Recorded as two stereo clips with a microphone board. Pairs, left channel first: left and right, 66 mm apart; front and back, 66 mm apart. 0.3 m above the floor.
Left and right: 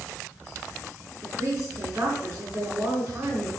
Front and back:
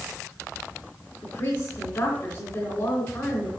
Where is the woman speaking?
25° right, 3 m.